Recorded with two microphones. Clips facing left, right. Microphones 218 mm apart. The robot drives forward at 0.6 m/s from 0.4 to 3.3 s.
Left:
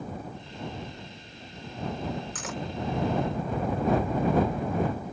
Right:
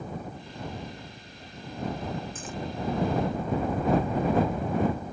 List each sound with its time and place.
2.4 s cutlery clinking: 80° left